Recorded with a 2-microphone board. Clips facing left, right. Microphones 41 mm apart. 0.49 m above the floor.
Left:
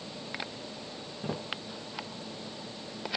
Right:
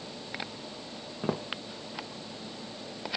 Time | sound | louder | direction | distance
1.2 | footsteps | right 5 dB | 65° right (ahead or behind) | 1.0 m